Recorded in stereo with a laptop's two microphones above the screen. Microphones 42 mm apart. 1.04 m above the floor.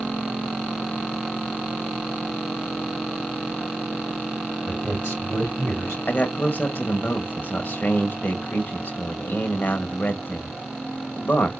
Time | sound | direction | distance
4.7 | a man speaking | 75° left (ahead or behind) | 3.5 m
6.1 | a man speaking | 50° left (ahead or behind) | 1.5 m